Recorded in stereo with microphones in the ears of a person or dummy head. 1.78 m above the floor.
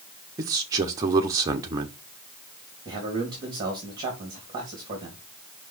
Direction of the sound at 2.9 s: 30° right (ahead or behind).